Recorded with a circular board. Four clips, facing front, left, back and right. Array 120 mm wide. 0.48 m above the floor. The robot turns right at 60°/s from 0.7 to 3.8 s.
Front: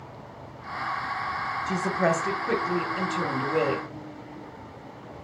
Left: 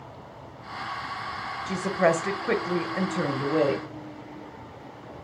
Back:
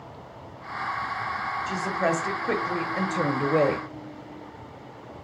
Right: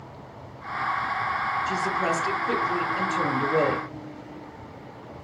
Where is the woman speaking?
60° left, 0.9 m; by 3.9 s 170° right, 0.9 m.